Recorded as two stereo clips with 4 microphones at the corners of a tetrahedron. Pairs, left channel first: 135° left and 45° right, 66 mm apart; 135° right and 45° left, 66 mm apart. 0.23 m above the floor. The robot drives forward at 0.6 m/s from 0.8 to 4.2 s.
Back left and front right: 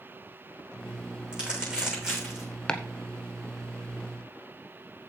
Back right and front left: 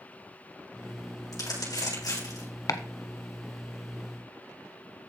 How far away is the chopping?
About 1.0 m.